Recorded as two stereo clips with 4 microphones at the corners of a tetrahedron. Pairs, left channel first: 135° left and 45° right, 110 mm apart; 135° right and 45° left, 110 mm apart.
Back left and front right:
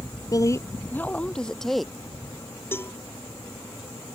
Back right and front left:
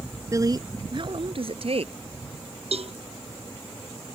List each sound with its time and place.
0.3 s a woman speaking: 95° left; by 1.9 s 45° left
2.7 s a cowbell: 65° left